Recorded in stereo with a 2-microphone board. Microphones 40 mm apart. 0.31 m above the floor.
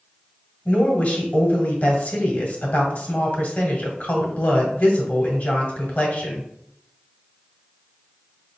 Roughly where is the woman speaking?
Left.